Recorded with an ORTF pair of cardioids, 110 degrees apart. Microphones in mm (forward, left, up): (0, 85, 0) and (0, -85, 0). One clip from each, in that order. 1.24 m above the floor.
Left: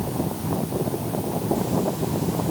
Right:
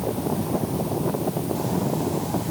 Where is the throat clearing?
No throat clearing in this recording.